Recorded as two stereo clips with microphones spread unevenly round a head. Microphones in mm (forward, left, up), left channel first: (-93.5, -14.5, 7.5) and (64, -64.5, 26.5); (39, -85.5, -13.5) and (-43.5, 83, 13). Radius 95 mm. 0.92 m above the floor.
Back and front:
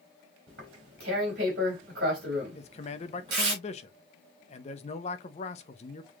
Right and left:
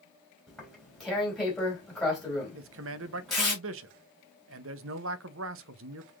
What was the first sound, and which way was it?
Tearing paper, 25° left.